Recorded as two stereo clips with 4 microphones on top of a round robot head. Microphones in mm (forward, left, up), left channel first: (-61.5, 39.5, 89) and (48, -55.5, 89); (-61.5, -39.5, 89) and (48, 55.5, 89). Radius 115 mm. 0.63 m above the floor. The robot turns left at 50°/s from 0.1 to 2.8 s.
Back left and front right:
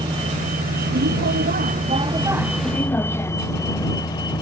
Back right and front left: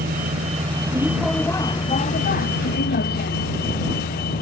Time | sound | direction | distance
0.0 | a vehicle | 20° left | ?